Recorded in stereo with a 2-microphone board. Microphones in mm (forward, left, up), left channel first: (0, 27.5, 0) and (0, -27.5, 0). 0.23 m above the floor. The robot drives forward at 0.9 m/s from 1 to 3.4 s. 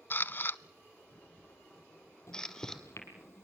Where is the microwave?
60° left (ahead or behind), 4.5 m; by 3.5 s 50° left (ahead or behind), 5 m.